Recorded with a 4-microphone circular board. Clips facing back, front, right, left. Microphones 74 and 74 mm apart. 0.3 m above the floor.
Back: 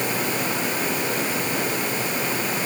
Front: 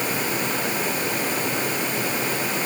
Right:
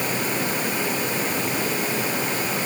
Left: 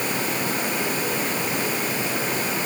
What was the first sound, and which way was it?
Only background noise.